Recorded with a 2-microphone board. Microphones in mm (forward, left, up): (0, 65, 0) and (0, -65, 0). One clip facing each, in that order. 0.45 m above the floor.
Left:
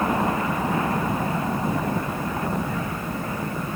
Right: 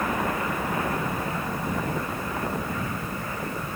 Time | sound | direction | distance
0.0 | a helicopter | 30° left (ahead or behind) | ?